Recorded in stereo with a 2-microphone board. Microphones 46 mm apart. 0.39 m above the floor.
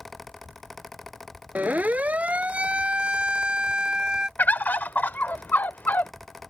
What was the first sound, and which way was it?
A siren, 35° right (ahead or behind).